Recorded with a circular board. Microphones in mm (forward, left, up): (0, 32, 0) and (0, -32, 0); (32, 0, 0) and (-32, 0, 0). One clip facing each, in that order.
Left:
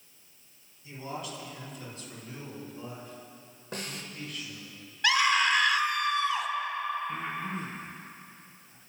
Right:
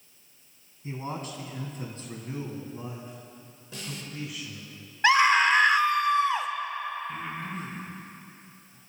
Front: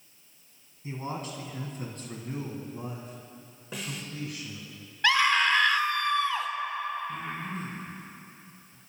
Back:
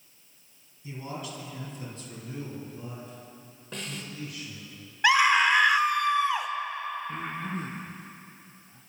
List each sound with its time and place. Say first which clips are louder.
0.8 s a man speaking: right 3 dB, front 2 dB; 50° right, 3 m; by 4.7 s 5° right, 3 m
3.7 s a snare drum: left 1 dB, even; 85° left, 1.5 m
5.0 s a scream: right 5 dB, back 3 dB; 115° right, 0.9 m
7.1 s breathing: left 1 dB, back 1 dB; 150° left, 4 m